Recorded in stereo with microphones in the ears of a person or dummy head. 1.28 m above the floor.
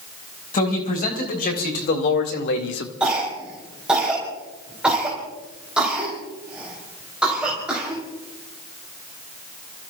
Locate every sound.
0.5 s a man speaking: 45° left (ahead or behind), 4 m; by 2.9 s 70° left (ahead or behind), 1.4 m
3.0 s a cough: 5° right (ahead or behind), 3.5 m